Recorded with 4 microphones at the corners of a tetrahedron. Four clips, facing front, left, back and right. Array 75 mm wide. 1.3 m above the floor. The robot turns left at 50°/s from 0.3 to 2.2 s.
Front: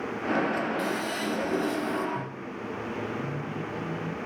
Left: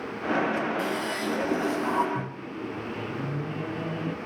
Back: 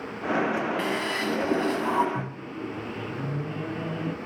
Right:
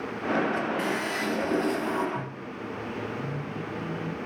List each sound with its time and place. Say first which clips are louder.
0.8 s a toilet flushing: even, back 2 dB; 155° right, 8.5 m; by 2.0 s 145° left, 8.5 m
2.1 s a microwave: left 2 dB, back 1 dB; 140° left, 1.1 m